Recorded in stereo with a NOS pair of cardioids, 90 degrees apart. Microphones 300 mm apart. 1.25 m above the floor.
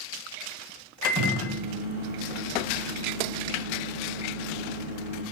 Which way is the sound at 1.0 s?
30° right.